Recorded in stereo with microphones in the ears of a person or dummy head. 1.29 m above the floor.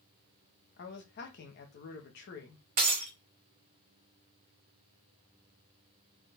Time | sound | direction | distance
0.8 | a man speaking | 55° left (ahead or behind) | 0.9 m
2.8 | breaking glass | 35° right (ahead or behind) | 0.9 m